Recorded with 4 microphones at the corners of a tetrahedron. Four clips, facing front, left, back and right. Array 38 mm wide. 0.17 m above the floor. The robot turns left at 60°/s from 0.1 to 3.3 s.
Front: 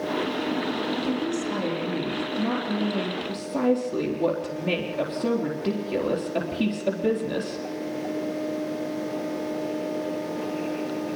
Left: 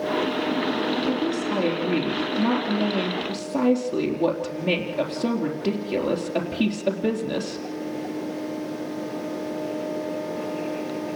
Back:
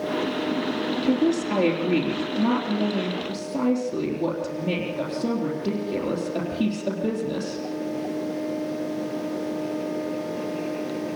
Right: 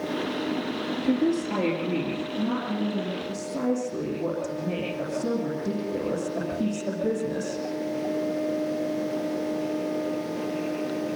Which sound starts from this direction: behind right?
A woman speaking, at 1.0 s.